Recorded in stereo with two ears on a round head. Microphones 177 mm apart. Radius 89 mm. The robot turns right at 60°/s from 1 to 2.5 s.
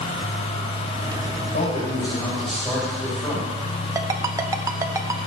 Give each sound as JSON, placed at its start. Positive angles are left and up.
{"t": 1.4, "sound": "a man speaking", "azimuth_deg": 120, "distance_m": 6.0}
{"t": 4.0, "sound": "a ringtone", "side_deg": -15, "distance_m": 0.7}